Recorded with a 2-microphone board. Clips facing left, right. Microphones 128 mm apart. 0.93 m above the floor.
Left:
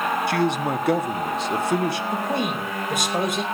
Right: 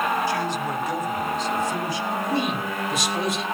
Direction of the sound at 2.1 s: 55° left (ahead or behind).